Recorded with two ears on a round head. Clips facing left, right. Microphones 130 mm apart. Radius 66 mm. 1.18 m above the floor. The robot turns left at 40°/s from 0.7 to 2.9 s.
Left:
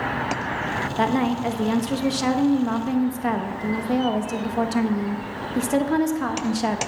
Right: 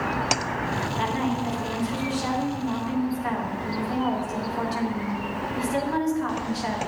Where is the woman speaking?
125° left, 1.3 m; by 6.8 s 50° left, 1.3 m.